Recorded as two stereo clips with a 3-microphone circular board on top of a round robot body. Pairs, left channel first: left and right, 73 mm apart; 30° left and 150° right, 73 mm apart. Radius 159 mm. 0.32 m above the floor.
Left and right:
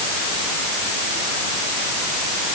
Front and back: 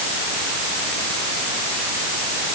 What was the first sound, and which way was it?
Only background noise.